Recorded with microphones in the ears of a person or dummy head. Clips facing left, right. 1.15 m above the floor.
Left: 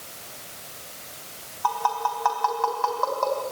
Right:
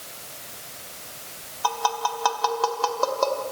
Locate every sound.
1.6 s tapping: 50° right (ahead or behind), 3 m